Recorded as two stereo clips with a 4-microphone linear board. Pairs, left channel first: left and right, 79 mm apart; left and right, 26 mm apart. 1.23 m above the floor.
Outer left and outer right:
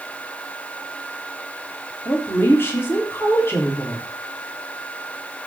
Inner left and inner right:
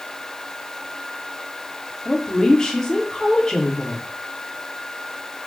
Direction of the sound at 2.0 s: 30° left (ahead or behind).